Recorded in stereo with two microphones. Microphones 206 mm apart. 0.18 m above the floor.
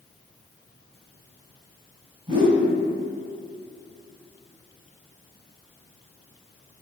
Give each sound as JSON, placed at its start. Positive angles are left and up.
{"t": 2.3, "sound": "a whoosh", "side_deg": -25, "distance_m": 1.0}